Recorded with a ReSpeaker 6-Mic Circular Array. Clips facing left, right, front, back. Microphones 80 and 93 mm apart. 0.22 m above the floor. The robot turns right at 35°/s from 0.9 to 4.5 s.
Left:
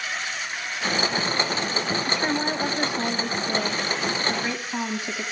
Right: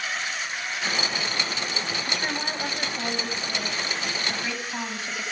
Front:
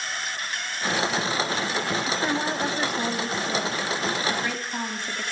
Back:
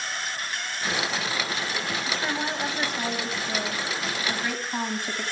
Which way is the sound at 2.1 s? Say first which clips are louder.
Left 5 dB, front 3 dB; 45° left.